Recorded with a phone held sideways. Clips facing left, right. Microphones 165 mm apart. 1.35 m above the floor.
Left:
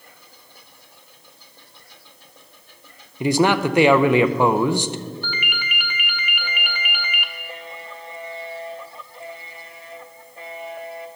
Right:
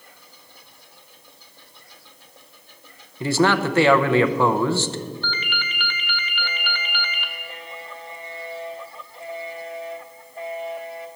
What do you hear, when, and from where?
3.2 s a man speaking: 15° left (ahead or behind), 0.6 m
5.2 s a ringtone: 10° left (ahead or behind), 1.0 m